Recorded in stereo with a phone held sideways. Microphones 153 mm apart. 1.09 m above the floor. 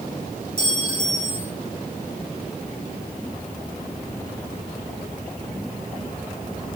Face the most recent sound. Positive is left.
turn(degrees=65)  # may be behind; listen again after turning